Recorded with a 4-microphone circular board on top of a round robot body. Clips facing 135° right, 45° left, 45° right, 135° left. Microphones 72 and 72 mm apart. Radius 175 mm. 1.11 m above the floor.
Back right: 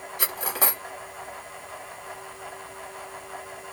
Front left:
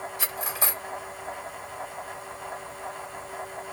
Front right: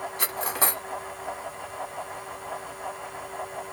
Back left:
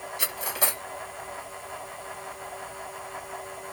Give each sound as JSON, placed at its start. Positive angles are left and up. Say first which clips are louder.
{"t": 0.2, "sound": "cutlery clinking", "louder": "back right 5 dB, front right 3 dB", "azimuth_deg": -100, "distance_m": 1.4}